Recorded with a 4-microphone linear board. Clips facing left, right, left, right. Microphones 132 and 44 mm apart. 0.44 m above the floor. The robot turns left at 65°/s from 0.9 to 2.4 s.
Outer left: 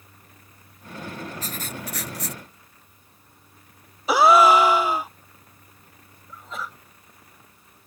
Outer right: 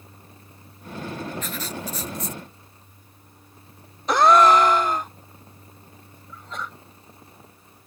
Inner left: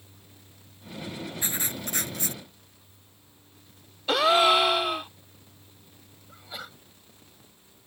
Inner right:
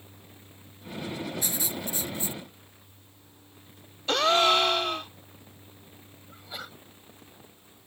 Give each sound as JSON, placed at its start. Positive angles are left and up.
{"t": 1.4, "sound": "writing", "azimuth_deg": 145}
{"t": 4.1, "sound": "a gasp", "side_deg": 5}
{"t": 6.3, "sound": "a sneeze", "side_deg": 5}